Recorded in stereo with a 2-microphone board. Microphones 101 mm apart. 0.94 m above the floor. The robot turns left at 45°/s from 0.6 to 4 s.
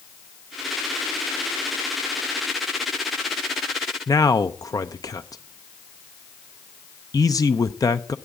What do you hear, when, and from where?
4.1 s a man speaking: 35° left (ahead or behind), 0.7 m